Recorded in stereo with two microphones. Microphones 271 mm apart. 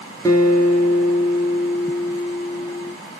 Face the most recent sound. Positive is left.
turn(degrees=15)  # may be behind; listen again after turning